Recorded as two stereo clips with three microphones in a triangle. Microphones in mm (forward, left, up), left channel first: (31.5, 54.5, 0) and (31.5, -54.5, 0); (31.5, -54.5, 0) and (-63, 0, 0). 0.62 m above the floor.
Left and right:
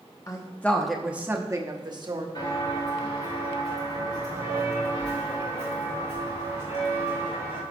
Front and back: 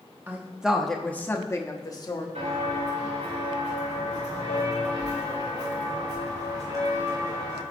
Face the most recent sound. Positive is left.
turn(degrees=95)